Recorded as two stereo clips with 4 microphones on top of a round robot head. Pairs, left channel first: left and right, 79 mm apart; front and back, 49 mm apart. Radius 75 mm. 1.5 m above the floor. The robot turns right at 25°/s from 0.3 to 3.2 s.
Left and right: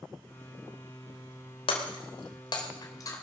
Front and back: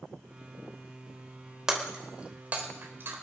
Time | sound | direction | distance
1.7 | breaking glass | 100° left | 3 m